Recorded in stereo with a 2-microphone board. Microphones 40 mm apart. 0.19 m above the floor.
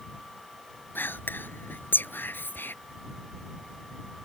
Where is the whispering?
65° left (ahead or behind).